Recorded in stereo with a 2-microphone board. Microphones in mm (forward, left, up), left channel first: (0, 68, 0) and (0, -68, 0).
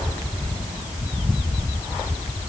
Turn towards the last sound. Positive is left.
No sound to turn to.